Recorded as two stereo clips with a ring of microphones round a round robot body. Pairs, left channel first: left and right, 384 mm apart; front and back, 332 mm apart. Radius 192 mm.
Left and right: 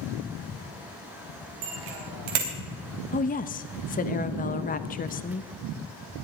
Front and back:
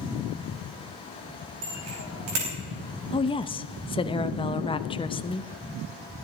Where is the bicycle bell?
125° right, 4 m.